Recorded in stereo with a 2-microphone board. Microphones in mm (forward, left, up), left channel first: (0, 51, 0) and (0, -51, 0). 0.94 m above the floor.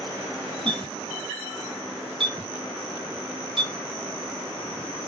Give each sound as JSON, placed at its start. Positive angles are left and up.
{"t": 0.7, "sound": "a clink", "side_deg": -60, "distance_m": 1.9}